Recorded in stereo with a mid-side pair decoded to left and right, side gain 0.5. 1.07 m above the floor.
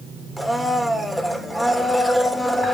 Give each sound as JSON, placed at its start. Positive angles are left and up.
{"t": 0.4, "sound": "a blender", "azimuth_deg": 5, "distance_m": 1.7}